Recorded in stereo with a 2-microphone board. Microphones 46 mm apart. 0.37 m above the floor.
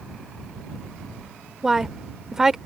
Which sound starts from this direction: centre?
A woman speaking, at 1.6 s.